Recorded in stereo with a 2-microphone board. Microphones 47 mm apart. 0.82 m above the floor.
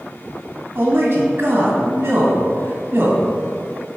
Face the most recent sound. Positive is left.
turn(degrees=-50)  # may be behind; listen again after turning